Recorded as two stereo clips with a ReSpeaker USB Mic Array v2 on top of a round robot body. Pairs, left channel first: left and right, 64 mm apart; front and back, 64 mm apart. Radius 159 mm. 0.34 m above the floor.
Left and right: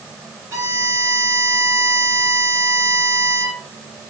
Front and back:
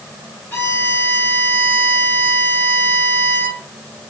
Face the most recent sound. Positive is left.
turn(degrees=-50)